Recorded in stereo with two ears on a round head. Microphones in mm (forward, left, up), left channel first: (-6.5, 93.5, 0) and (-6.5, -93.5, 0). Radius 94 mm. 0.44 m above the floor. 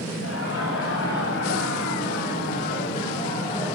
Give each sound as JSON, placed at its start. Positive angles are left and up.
{"t": 0.2, "sound": "laughter", "side_deg": 70, "distance_m": 2.5}